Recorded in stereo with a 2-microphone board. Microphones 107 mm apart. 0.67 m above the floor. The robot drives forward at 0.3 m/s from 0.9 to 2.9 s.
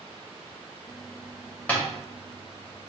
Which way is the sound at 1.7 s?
15° left (ahead or behind).